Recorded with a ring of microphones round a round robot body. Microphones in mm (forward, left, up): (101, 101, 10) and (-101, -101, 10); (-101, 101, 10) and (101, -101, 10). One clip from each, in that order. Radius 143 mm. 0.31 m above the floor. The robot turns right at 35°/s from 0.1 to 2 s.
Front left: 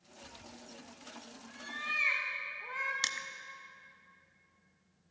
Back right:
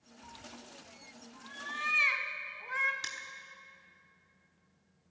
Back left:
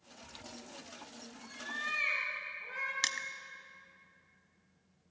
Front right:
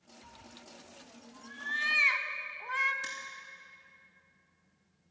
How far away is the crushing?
About 0.7 m.